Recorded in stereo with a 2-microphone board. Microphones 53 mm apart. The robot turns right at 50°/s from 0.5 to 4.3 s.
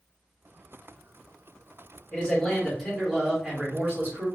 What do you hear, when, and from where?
2.1 s a man speaking: 145° left, 2.0 m; by 4.3 s 105° right, 2.0 m